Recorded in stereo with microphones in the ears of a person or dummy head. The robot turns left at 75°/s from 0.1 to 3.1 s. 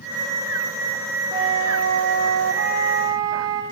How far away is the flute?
About 2.5 m.